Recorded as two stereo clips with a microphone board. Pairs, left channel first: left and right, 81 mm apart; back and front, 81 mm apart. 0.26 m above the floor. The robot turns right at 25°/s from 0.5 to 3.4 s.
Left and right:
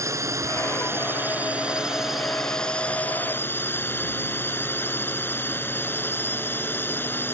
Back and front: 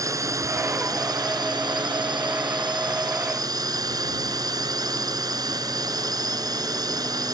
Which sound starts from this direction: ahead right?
A drone, at 0.0 s.